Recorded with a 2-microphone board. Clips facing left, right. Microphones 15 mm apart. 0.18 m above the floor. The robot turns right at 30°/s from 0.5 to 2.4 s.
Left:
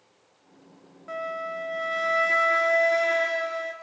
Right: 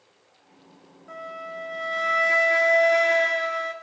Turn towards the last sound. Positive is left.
turn(degrees=-170)